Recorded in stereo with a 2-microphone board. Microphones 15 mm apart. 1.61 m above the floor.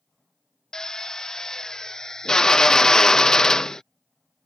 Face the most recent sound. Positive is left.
turn(degrees=50)  # may be behind; listen again after turning